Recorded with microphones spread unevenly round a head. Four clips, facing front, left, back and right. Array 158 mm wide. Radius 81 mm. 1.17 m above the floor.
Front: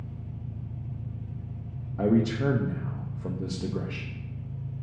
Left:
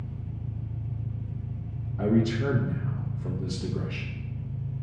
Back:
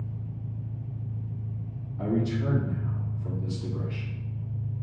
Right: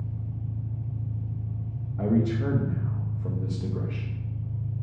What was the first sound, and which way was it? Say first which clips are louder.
An engine running: right 2 dB, back 2 dB; 95° right.